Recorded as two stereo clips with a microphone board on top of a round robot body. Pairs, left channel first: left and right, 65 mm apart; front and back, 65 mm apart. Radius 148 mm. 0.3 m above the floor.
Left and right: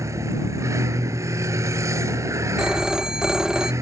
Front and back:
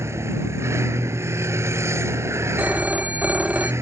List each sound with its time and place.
0.0 s a vehicle: 135° right
2.6 s a phone ringing: 155° right